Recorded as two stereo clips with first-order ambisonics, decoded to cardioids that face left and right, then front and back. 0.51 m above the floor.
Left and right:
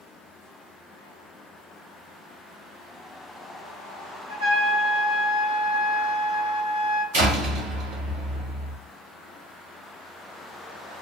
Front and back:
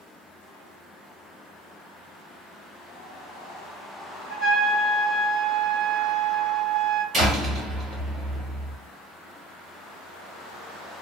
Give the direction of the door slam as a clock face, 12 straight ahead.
3 o'clock.